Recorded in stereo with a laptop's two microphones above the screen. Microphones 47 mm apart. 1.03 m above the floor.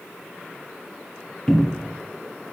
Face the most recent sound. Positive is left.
turn(degrees=5)  # may be behind; listen again after turning